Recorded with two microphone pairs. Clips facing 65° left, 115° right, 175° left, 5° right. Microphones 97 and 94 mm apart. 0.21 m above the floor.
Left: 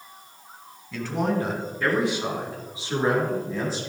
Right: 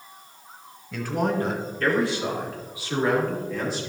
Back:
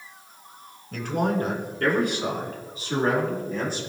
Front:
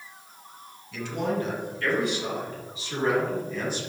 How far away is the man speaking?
About 2.0 m.